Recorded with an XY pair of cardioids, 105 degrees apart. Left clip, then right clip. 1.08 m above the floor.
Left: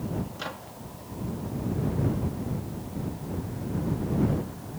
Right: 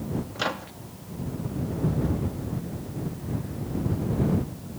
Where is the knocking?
No knocking in this recording.